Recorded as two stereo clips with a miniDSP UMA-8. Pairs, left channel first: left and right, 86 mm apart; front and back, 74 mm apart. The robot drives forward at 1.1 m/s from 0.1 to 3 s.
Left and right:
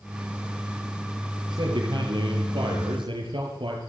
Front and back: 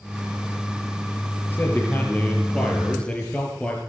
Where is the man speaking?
60° right, 6.5 m; by 3.8 s 75° right, 6 m.